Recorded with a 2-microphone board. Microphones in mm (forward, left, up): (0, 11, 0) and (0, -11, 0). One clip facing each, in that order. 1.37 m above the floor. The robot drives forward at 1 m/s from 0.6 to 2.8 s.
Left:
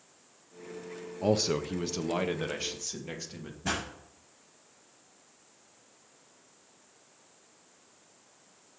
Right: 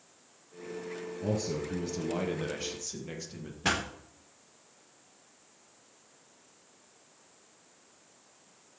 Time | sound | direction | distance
1.2 | a man speaking | 60° left (ahead or behind) | 0.6 m
3.6 | a pop | 70° right (ahead or behind) | 3.5 m